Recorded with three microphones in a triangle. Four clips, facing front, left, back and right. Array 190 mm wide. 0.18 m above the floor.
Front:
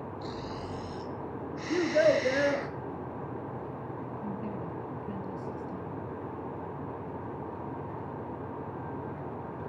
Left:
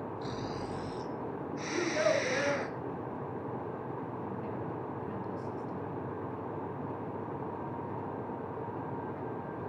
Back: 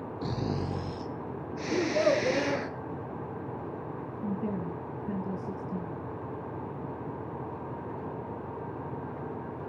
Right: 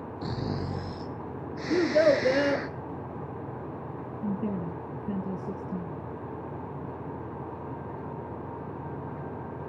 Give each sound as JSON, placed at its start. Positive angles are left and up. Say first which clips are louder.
{"t": 0.2, "sound": "snoring", "louder": "right 8 dB, back 8 dB", "azimuth_deg": -145, "distance_m": 1.3}
{"t": 1.7, "sound": "a child speaking", "louder": "right 8 dB, front 2 dB", "azimuth_deg": -75, "distance_m": 2.5}
{"t": 4.2, "sound": "a woman speaking", "louder": "right 6 dB, back 6 dB", "azimuth_deg": -115, "distance_m": 2.0}